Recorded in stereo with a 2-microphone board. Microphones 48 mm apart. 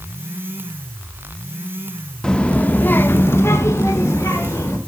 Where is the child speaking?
15° left (ahead or behind), 0.7 m; by 4.8 s 85° left, 1.6 m.